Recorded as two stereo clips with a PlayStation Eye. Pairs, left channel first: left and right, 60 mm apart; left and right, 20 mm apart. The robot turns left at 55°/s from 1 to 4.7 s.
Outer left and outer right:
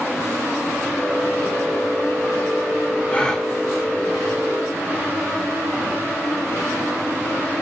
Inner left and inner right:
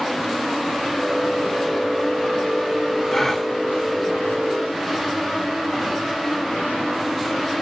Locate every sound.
3.1 s a gasp: 25° left (ahead or behind), 2.5 m; by 3.5 s 5° left (ahead or behind), 2.5 m